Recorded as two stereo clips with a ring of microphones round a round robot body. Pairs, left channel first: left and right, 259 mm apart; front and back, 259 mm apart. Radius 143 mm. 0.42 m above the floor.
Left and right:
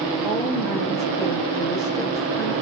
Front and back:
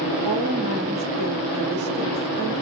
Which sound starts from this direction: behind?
A woman speaking, at 0.2 s.